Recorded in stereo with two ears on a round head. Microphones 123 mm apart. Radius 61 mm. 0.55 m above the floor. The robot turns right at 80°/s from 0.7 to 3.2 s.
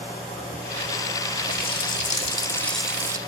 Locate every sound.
1.5 s a running tap: 75° left, 1.4 m; by 3.2 s 150° right, 1.4 m